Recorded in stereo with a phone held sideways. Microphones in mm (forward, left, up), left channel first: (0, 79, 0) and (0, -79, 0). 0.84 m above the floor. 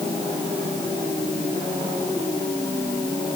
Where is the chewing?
I don't hear chewing.